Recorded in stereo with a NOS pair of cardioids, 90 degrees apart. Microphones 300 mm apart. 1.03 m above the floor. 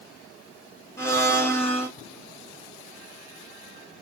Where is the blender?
10° left, 1.7 m.